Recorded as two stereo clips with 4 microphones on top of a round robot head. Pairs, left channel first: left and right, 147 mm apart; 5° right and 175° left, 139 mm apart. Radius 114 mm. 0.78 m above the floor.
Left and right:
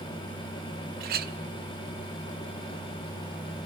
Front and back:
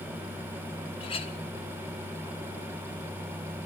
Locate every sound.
1.0 s a clink: 65° right, 0.9 m